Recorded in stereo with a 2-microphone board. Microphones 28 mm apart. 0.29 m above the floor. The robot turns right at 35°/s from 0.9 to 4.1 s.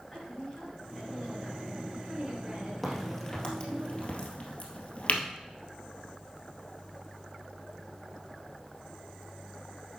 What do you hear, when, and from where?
0.1 s a woman speaking: 160° left, 3.5 m; by 3.8 s 100° right, 3.5 m
2.8 s a crack: 10° left (ahead or behind), 1.9 m; by 5.2 s 55° left (ahead or behind), 1.9 m